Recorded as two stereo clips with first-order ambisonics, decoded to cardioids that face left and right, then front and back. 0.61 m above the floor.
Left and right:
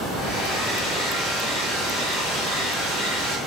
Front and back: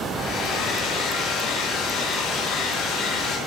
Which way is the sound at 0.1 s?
40° left.